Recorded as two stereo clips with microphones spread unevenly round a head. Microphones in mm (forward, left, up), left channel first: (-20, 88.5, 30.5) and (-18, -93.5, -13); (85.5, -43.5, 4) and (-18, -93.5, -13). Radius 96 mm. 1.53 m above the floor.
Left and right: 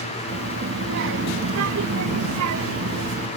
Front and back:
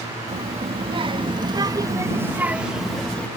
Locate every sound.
0.3 s a child speaking: 125° right; by 3.3 s 55° right